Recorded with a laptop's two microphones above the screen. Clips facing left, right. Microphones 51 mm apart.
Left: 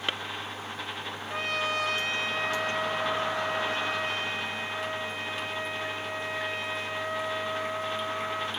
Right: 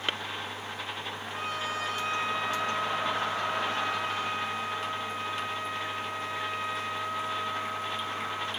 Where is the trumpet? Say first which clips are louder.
Left 4 dB; 70° left (ahead or behind), 1.2 m.